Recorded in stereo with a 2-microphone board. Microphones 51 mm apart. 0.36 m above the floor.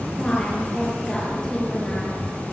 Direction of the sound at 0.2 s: 15° left (ahead or behind).